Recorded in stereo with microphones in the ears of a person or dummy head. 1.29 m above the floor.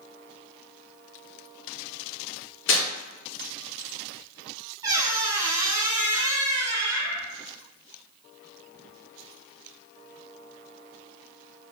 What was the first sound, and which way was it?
Tearing paper, 60° left (ahead or behind).